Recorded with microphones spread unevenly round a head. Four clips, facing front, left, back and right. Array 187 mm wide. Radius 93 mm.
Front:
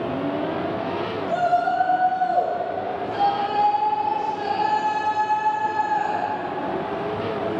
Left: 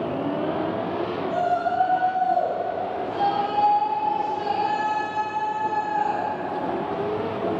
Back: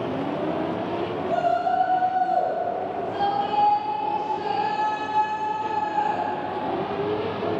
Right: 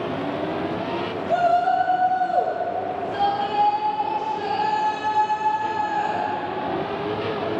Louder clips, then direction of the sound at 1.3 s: Right 6 dB, front 2 dB; 80° right.